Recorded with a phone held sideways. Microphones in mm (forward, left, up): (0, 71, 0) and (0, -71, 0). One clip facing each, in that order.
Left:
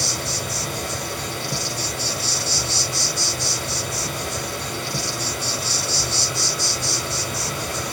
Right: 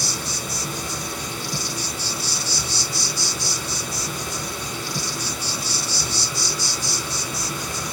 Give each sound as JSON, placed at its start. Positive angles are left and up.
{"t": 0.0, "sound": "an insect", "side_deg": 60, "distance_m": 1.4}